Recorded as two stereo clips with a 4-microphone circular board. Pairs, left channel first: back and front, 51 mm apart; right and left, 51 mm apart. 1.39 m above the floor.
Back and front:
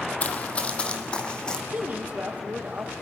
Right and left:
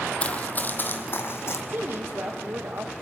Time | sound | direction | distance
0.2 | running footsteps | 140° right | 1.8 m
1.7 | a woman speaking | 55° left | 1.9 m